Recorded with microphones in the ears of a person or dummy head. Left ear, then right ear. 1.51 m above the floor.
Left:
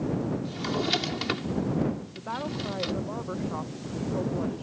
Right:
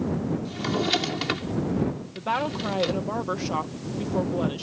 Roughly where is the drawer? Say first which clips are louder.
Right 3 dB; centre.